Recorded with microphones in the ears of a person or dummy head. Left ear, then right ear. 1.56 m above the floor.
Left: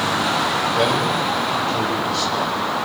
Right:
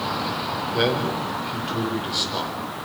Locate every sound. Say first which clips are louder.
0.7 s a man speaking: left 4 dB; 25° right (ahead or behind), 7 m